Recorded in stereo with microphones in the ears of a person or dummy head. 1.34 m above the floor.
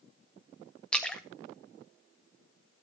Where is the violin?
No violin in this recording.